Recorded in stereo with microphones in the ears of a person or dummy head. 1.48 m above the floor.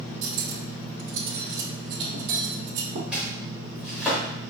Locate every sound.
0.2 s cutlery clinking: 60° right (ahead or behind), 1.6 m
3.1 s chopping: 5° right (ahead or behind), 2.5 m